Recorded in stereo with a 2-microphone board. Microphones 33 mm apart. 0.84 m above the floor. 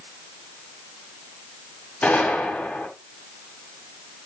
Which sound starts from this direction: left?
A gunshot, at 2.0 s.